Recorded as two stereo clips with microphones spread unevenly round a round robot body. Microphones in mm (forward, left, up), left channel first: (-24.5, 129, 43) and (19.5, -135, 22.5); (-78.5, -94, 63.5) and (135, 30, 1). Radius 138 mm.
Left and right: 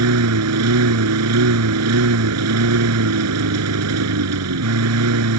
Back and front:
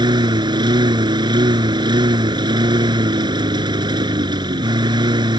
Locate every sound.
0.0 s a lawn mower: 45° right